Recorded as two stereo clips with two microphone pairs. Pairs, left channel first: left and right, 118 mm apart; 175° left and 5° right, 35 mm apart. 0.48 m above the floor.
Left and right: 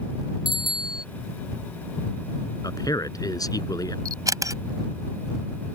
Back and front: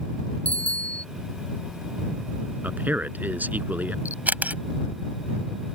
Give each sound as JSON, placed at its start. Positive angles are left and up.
{"t": 0.5, "sound": "a bicycle bell", "azimuth_deg": -135}
{"t": 2.6, "sound": "a man speaking", "azimuth_deg": 30}
{"t": 4.0, "sound": "a camera shutter", "azimuth_deg": -35}